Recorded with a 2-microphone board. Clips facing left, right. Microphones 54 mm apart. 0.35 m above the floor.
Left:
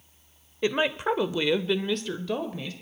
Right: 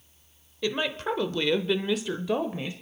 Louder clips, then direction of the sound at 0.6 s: Left 3 dB; 25° left (ahead or behind).